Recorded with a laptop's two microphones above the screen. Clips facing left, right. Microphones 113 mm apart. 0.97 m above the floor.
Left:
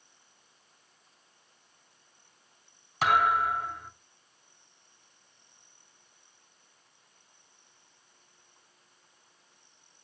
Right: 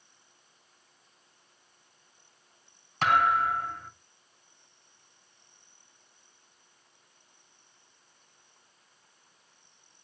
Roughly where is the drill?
I don't hear a drill.